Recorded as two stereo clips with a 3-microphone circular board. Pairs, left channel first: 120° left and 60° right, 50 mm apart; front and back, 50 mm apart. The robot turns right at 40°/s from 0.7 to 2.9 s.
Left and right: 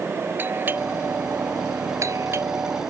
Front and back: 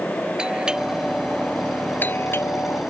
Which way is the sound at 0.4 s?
105° right.